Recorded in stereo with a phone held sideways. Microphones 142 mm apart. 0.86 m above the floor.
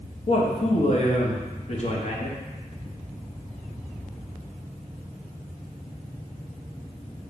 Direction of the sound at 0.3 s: 50° left (ahead or behind).